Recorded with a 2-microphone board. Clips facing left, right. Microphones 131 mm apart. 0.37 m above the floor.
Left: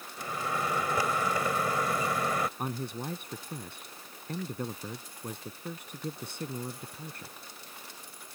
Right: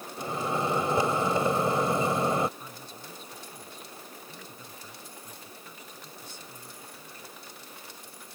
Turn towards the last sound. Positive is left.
turn(degrees=70)  # may be behind; listen again after turning